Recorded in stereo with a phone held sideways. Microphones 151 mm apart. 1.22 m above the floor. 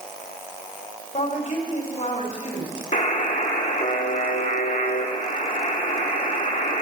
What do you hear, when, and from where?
1.1 s a woman speaking: 50° left (ahead or behind), 3 m
2.9 s a buzzer: 55° left (ahead or behind), 1.2 m